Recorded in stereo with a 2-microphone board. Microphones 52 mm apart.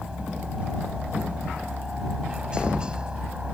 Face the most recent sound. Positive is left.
turn(degrees=-20)  # may be behind; listen again after turning